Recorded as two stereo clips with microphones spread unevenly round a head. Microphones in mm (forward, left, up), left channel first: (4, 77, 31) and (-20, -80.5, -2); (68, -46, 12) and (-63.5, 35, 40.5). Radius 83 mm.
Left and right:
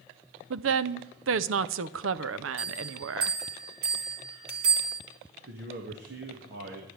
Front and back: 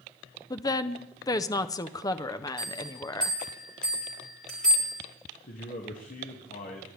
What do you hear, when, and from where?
0.5 s a woman speaking: 105° right, 0.6 m
2.6 s a bell: 120° right, 3.5 m
5.4 s a man speaking: 75° right, 1.9 m